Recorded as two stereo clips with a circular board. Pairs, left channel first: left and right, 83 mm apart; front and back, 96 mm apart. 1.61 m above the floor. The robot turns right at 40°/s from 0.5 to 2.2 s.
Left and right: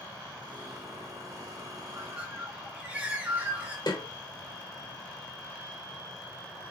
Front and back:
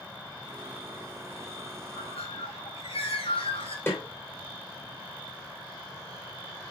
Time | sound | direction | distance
1.9 | a bird | 25° right | 2 m
3.9 | a snare drum | 65° left | 3 m